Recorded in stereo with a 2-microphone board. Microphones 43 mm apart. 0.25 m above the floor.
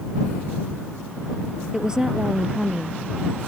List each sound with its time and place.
1.7 s a woman speaking: 15° right (ahead or behind)